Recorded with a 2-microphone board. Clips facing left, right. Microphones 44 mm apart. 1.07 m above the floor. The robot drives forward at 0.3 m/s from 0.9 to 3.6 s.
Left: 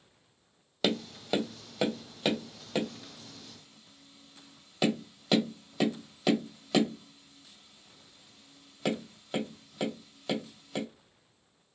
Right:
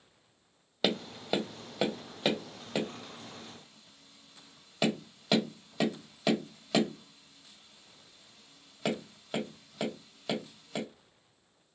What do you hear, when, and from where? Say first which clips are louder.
0.8 s tapping: even; 5° right (ahead or behind), 0.5 m; by 10.8 s centre (ahead or behind), 1.3 m